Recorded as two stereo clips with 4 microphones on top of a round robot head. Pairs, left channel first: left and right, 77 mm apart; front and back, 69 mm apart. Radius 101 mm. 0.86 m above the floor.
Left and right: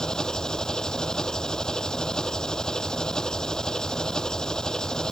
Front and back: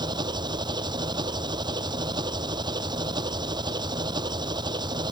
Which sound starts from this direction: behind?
An engine running, at 0.0 s.